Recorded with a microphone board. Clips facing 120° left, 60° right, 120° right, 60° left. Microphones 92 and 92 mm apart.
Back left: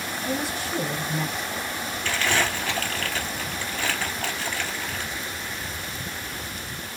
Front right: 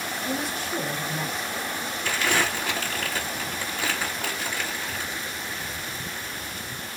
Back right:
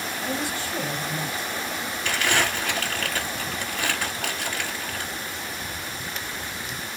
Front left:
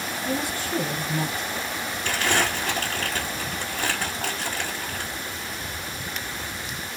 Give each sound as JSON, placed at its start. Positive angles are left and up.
{"t": 0.2, "sound": "a woman speaking", "azimuth_deg": 30, "distance_m": 2.5}
{"t": 2.0, "sound": "crumpling", "azimuth_deg": 10, "distance_m": 2.5}